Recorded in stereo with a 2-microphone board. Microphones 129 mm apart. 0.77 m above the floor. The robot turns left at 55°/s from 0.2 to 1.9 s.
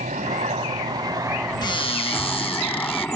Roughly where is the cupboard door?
Left.